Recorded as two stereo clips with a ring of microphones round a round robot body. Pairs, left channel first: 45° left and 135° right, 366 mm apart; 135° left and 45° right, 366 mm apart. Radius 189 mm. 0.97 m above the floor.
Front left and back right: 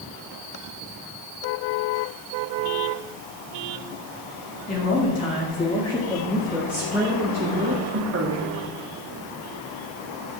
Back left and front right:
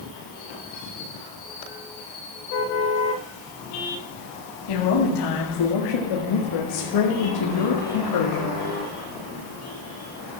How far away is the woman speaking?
About 2.5 m.